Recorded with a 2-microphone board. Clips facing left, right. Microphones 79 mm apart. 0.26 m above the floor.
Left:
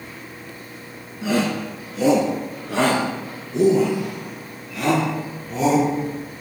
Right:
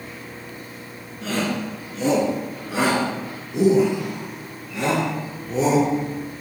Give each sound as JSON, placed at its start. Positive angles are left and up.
{"t": 1.2, "sound": "a shout", "side_deg": 15, "distance_m": 3.5}